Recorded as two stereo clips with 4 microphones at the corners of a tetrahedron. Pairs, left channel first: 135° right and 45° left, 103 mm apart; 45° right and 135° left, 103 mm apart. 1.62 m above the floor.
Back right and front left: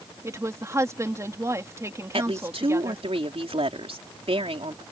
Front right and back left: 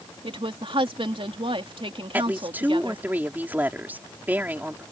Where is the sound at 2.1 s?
60° left.